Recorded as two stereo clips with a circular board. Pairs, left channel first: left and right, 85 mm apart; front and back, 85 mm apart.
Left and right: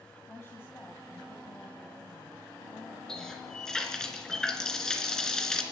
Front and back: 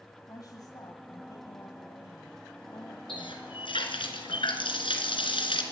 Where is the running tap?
5° left, 2.5 m.